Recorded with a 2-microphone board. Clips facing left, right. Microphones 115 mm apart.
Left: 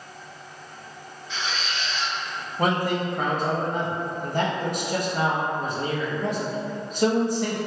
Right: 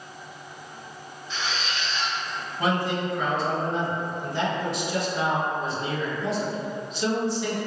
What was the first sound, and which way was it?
A squeak, 65° left (ahead or behind).